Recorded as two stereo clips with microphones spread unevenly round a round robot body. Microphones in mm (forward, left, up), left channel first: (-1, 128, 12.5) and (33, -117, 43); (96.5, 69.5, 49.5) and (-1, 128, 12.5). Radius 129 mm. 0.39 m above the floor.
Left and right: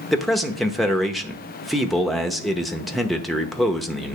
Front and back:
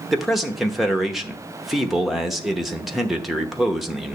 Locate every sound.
0.1 s a man speaking: 165° left, 0.9 m